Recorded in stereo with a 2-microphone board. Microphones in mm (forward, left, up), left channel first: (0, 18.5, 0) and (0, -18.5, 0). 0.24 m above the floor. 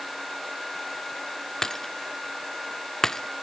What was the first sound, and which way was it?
Breaking glass, 15° left (ahead or behind).